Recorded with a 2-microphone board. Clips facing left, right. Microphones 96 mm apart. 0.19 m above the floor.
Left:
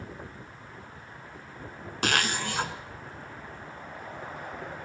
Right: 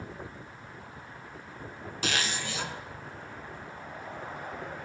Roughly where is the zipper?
Left.